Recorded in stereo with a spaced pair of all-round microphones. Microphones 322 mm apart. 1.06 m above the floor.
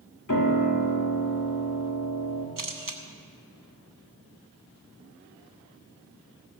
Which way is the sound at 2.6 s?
80° right.